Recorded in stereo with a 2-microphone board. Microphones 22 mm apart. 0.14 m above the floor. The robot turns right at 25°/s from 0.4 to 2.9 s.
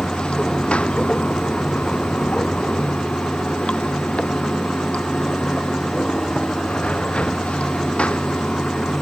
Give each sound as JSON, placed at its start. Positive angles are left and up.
{"t": 0.0, "sound": "running water", "azimuth_deg": 50}